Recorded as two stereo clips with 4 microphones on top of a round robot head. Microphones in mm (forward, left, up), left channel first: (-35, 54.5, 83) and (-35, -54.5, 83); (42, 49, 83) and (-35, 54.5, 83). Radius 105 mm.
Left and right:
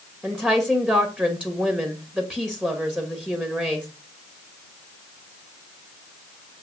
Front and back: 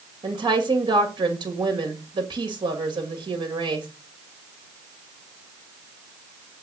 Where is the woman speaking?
170° right, 2.5 m.